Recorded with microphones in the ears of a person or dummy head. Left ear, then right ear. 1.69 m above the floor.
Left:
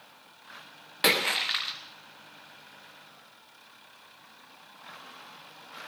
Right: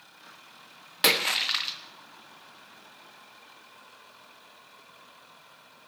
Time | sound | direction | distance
1.0 | a splash | 10° right (ahead or behind) | 1.3 m